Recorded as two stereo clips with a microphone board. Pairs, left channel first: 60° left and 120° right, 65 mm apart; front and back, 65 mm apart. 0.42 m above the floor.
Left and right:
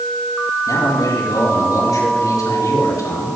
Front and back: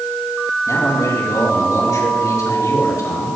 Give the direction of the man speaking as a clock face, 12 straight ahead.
11 o'clock.